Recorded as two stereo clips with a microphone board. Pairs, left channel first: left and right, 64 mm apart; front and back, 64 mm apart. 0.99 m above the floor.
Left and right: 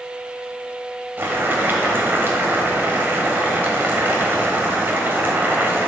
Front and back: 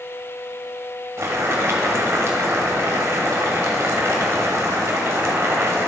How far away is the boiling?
About 1.4 m.